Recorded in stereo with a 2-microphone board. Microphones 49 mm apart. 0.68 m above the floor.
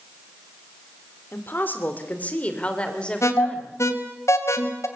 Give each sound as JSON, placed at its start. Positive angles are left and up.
{"t": 1.3, "sound": "a woman speaking", "side_deg": 45, "distance_m": 2.5}
{"t": 3.2, "sound": "an alarm", "side_deg": 75, "distance_m": 3.0}